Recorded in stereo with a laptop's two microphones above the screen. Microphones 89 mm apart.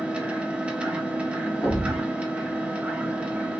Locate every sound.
0.0 s a machine running: 15° right (ahead or behind), 0.8 m
1.6 s a thud: 20° left (ahead or behind), 1.2 m